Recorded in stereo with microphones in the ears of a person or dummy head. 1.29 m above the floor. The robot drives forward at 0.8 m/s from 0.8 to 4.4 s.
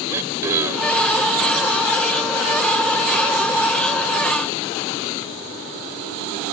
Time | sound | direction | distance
0.1 | throat clearing | 5° right (ahead or behind) | ?